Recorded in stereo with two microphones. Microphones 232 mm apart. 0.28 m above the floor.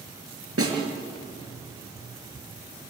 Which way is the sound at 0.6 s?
75° right (ahead or behind).